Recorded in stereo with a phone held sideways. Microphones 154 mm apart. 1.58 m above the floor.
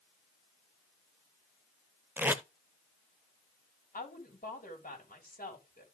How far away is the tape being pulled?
About 0.7 m.